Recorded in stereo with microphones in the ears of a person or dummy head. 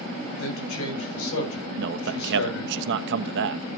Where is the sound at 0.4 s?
80° left, 8.5 m.